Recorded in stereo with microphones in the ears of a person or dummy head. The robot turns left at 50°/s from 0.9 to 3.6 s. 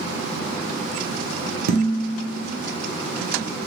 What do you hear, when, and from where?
1.7 s dishes clattering: 105° right, 0.7 m; by 2.5 s 145° right, 0.7 m